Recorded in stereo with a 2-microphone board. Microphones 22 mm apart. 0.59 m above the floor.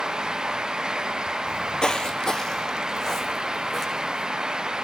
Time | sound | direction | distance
1.5 | footsteps | 40° left (ahead or behind) | 0.7 m